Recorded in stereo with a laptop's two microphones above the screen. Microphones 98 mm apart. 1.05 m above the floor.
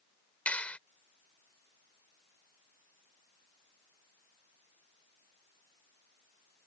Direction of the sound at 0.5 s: 15° left (ahead or behind).